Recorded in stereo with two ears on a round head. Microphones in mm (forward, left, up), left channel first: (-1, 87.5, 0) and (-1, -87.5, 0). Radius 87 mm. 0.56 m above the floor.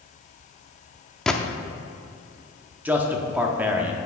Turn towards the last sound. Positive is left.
turn(degrees=-10)  # may be behind; listen again after turning